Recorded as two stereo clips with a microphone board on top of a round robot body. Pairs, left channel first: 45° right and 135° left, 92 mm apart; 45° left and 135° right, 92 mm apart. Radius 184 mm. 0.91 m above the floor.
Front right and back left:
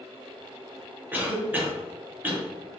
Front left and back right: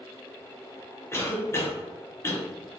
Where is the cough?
80° left, 0.9 m.